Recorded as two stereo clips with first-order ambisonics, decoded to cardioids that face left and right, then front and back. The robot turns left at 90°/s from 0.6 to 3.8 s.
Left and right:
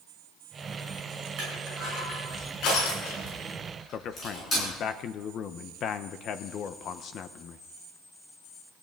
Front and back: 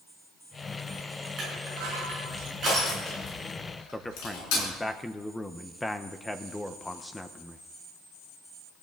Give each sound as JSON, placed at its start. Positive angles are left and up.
{"t": 1.4, "sound": "crushing", "azimuth_deg": -120, "distance_m": 10.0}
{"t": 3.9, "sound": "a man speaking", "azimuth_deg": 80, "distance_m": 0.7}